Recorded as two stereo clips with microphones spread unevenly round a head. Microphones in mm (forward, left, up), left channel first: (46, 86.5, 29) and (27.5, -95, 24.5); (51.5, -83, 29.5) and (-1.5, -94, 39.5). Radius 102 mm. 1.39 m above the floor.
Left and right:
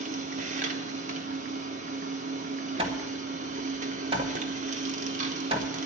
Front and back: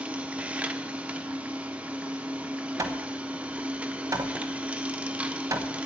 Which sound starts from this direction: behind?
Hammering, at 2.8 s.